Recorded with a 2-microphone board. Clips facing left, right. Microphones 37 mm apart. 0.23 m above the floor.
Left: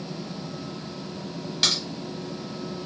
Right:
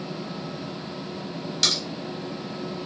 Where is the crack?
15° left (ahead or behind), 1.6 m.